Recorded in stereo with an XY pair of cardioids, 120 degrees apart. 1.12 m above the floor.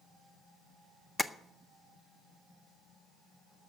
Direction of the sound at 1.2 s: 5° left.